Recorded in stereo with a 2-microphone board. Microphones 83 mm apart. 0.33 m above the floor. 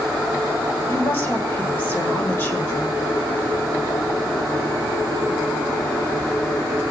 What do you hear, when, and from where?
0.9 s a woman speaking: 25° left (ahead or behind), 1.3 m